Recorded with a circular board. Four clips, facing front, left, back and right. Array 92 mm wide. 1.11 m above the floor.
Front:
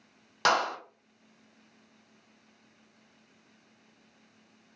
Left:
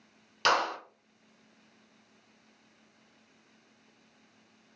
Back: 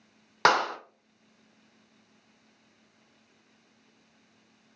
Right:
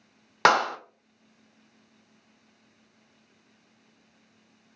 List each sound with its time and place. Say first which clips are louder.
0.5 s a clap: right 6 dB, back 3 dB; 115° right, 0.6 m